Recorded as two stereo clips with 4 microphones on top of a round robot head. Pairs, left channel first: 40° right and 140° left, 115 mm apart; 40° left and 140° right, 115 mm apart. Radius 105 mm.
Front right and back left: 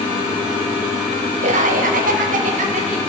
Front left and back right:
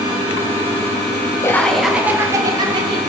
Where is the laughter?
110° left, 0.9 m; by 3.0 s 170° left, 1.5 m.